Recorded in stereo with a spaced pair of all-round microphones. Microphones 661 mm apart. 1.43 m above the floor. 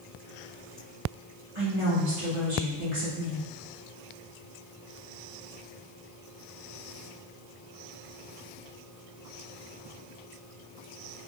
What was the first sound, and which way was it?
A woman speaking, 50° right (ahead or behind).